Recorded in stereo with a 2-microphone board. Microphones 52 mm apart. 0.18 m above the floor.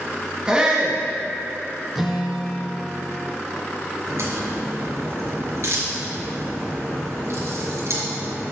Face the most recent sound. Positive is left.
turn(degrees=-65)  # may be behind; listen again after turning